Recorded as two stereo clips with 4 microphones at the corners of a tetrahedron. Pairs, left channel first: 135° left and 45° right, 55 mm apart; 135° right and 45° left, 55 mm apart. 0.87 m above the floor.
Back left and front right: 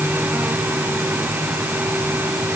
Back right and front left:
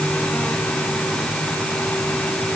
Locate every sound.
Only background noise.